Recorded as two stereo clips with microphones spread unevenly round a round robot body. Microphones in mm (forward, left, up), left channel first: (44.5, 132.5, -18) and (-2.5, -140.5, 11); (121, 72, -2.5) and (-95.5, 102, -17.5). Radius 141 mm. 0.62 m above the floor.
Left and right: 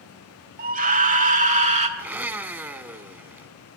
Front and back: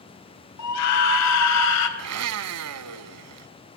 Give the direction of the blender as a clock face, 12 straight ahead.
6 o'clock.